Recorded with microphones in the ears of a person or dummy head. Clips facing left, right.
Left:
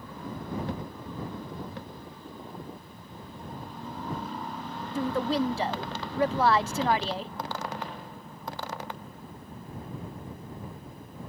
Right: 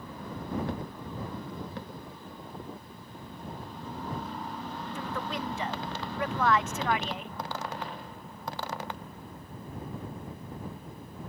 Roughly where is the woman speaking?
Left.